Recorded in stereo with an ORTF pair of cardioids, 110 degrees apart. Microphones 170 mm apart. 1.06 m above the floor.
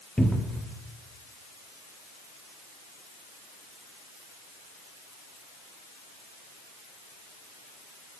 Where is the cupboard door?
5° left, 1.2 m.